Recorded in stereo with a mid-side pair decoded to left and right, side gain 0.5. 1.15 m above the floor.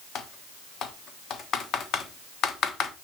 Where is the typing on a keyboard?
60° left, 1.3 m.